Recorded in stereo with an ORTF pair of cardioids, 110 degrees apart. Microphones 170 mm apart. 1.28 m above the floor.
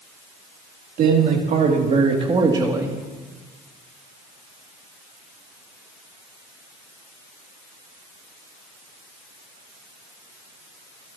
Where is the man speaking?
60° right, 3 m; by 3.0 s 15° right, 2.5 m.